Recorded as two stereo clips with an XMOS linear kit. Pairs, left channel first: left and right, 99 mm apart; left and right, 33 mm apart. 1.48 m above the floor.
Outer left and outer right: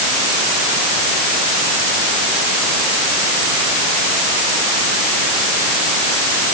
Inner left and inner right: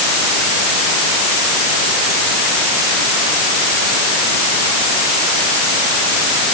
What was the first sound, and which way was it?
Only background noise.